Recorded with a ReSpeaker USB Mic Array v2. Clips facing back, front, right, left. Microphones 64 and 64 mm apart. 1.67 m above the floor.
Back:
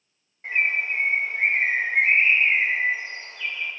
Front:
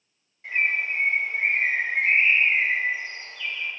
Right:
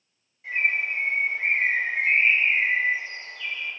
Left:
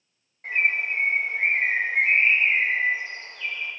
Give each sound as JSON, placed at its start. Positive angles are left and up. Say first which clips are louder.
{"t": 0.4, "sound": "a bird", "louder": "back 1 dB, left 1 dB", "azimuth_deg": 125, "distance_m": 2.5}